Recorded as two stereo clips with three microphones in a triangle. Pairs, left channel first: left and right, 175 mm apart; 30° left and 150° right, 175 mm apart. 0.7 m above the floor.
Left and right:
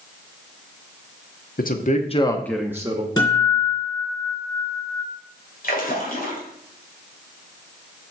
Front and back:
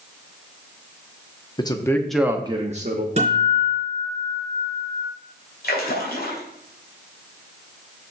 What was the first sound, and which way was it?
A man speaking, 90° left.